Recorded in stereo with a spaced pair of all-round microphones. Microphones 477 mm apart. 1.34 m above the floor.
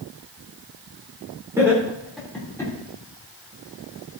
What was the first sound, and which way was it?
Laughter, 5° right (ahead or behind).